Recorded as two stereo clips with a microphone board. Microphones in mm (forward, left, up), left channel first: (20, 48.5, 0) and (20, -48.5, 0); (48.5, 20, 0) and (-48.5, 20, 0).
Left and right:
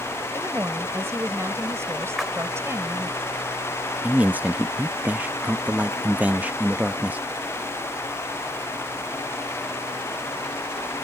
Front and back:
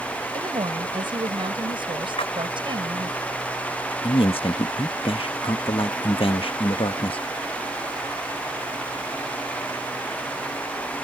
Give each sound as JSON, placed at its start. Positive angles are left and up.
{"t": 0.3, "sound": "a woman speaking", "azimuth_deg": -150}
{"t": 2.2, "sound": "a splash", "azimuth_deg": 0}
{"t": 4.0, "sound": "a man speaking", "azimuth_deg": -15}